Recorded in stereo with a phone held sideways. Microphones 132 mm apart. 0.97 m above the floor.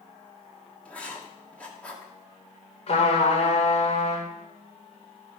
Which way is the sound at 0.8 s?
10° left (ahead or behind).